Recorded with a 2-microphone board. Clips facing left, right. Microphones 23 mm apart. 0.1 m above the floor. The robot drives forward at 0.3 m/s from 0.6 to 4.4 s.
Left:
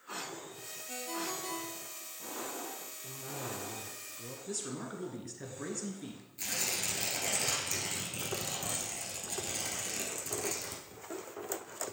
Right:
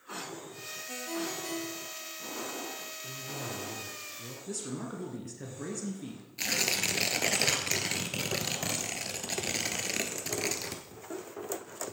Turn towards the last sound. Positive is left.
turn(degrees=-40)  # may be behind; listen again after turning